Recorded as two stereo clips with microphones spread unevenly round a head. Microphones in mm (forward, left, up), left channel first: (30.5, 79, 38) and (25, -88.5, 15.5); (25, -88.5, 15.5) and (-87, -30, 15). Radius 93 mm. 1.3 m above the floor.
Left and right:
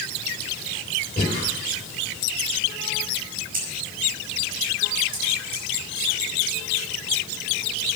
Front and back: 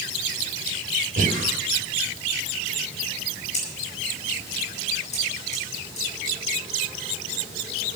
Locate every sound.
1.2 s breathing: 140° left, 2.0 m
3.5 s scissors: 55° right, 5.5 m